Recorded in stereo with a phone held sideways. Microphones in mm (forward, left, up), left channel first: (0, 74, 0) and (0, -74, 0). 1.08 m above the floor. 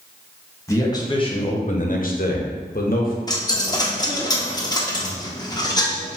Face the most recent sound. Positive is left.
turn(degrees=25)  # may be behind; listen again after turning